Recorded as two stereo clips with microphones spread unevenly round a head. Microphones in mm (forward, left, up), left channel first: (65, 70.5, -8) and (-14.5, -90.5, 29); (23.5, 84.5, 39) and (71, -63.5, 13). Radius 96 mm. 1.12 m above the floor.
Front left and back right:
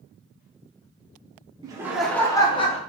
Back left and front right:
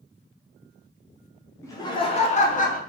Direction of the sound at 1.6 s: Straight behind.